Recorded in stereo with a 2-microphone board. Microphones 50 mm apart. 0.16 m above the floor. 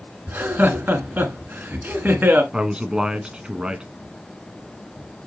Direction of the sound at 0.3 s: 40° right (ahead or behind).